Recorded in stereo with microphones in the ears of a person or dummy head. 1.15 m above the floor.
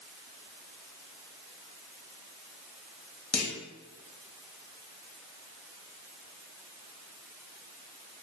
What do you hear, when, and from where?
3.3 s a clunk: 5° left (ahead or behind), 0.5 m